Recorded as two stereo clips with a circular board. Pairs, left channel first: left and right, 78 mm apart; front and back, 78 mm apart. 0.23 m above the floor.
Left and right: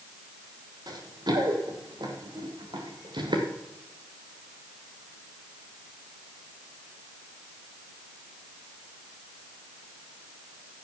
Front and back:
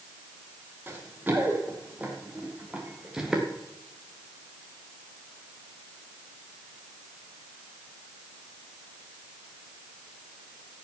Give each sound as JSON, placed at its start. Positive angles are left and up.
{"t": 0.9, "sound": "running footsteps", "azimuth_deg": -115, "distance_m": 4.0}